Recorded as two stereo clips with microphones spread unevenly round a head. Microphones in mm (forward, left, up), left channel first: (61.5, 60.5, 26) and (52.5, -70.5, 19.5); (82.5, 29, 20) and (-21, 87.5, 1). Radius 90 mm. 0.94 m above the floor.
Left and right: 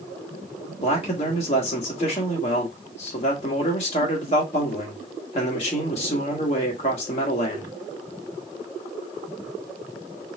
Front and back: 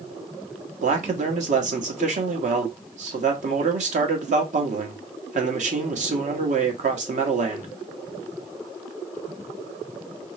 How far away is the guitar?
I don't hear a guitar.